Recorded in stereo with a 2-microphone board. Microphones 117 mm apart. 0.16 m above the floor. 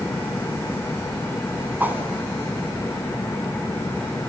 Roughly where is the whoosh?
Centre.